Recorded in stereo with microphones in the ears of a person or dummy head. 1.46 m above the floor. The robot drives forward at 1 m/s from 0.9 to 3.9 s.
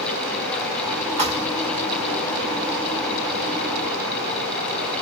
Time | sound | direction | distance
1.2 | a thud | 30° right (ahead or behind) | 3.5 m